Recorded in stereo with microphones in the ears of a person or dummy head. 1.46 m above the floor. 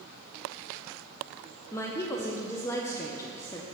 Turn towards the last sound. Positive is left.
turn(degrees=15)  # may be behind; listen again after turning